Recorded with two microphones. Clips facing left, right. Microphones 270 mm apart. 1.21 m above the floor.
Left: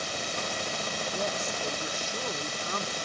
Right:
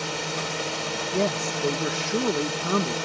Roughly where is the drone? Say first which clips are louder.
Right 5 dB; right.